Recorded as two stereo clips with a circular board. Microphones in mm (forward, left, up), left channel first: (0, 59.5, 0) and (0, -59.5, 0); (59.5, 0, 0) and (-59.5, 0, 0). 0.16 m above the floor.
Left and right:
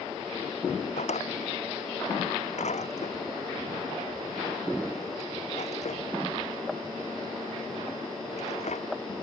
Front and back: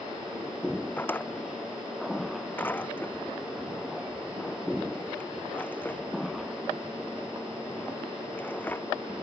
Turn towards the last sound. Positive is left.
turn(degrees=75)